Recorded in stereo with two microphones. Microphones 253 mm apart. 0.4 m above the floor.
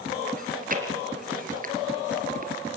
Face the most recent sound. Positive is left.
turn(degrees=-35)  # may be behind; listen again after turning